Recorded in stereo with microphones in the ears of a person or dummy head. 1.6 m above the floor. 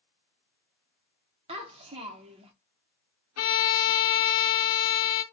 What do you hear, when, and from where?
1.5 s a child speaking: 25° right (ahead or behind), 0.6 m
3.4 s a violin: 80° left, 1.0 m